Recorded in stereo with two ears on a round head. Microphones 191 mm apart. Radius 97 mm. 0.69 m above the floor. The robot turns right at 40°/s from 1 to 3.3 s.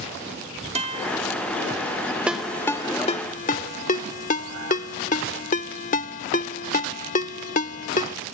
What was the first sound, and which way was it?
A guitar, 30° right (ahead or behind).